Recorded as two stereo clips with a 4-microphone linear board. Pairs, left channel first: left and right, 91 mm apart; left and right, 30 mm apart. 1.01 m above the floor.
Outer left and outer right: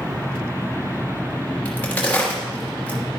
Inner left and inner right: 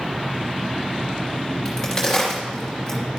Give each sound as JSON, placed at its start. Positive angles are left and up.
{"t": 1.6, "sound": "a crack", "side_deg": 20, "distance_m": 2.5}